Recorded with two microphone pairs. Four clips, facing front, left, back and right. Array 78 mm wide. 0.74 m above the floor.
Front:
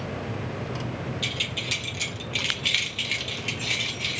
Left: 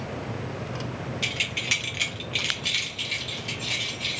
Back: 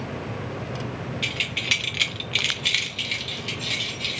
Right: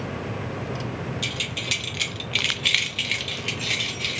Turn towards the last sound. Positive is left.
turn(degrees=-80)